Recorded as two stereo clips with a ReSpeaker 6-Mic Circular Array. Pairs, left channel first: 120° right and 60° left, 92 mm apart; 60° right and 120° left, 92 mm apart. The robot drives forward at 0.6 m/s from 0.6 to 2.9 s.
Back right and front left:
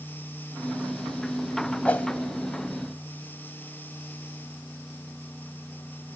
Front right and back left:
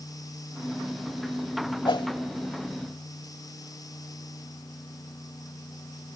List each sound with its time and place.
1.9 s a whoosh: 50° right, 0.8 m; by 2.1 s 55° right, 0.7 m